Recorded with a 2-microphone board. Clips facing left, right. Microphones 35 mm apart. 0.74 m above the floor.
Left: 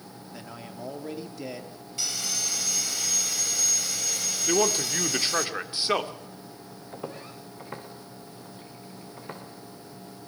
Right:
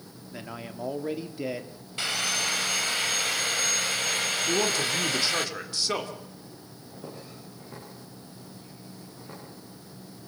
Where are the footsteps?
60° left (ahead or behind), 4 m; by 9.4 s 45° left (ahead or behind), 5 m.